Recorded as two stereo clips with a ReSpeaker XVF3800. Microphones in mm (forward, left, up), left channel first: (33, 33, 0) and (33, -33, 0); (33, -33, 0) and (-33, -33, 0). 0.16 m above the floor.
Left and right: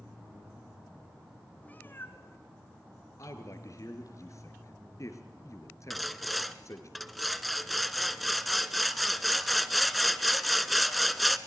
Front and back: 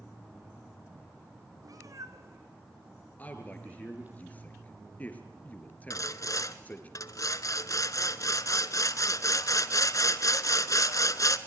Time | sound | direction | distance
1.6 | a cat meowing | 160° left | 1.1 m
3.2 | a man speaking | 65° left | 2.5 m
5.9 | sawing | straight ahead | 0.8 m